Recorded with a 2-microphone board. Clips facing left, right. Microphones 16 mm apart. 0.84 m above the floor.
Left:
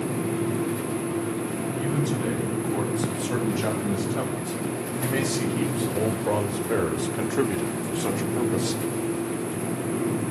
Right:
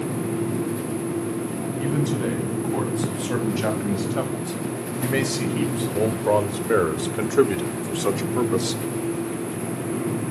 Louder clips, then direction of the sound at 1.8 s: Right 3 dB; 15° right (ahead or behind).